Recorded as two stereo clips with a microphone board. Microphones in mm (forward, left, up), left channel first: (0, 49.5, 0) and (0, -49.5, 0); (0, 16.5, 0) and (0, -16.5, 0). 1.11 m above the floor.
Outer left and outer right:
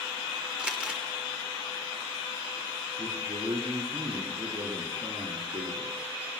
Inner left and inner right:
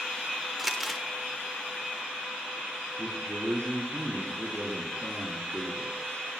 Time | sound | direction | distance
0.6 | crumpling | 10° right (ahead or behind) | 1.6 m
3.0 | a man speaking | 85° right | 3.5 m